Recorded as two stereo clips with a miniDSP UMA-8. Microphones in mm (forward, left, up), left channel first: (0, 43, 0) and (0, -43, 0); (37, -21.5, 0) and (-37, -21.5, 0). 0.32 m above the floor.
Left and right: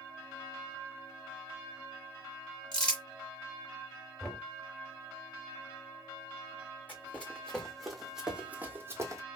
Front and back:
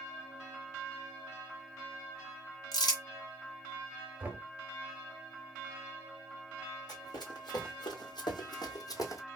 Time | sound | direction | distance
2.7 | crumpling | 10° left | 1.4 m
4.2 | knocking | 175° left | 0.6 m
6.9 | running footsteps | 20° left | 1.4 m